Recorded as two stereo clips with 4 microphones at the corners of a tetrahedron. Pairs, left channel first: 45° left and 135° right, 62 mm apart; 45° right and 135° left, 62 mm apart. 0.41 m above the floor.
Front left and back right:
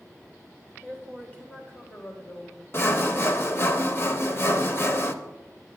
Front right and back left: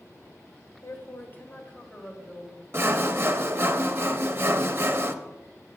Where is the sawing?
90° left, 0.7 m.